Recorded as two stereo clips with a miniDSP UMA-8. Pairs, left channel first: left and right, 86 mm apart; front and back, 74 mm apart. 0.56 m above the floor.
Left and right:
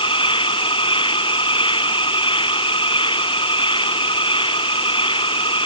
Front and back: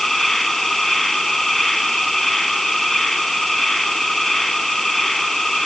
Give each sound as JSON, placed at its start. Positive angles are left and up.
{"t": 0.0, "sound": "an insect", "azimuth_deg": 90}